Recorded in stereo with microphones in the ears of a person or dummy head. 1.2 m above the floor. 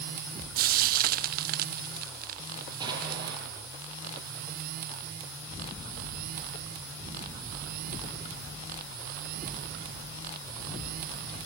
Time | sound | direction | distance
0.6 | frying | 50° right (ahead or behind) | 0.7 m
2.8 | an explosion | 25° right (ahead or behind) | 8 m